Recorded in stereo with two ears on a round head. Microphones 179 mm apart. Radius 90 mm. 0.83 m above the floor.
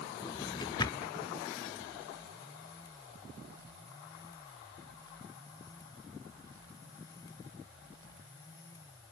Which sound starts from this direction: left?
A drawer, at 0.2 s.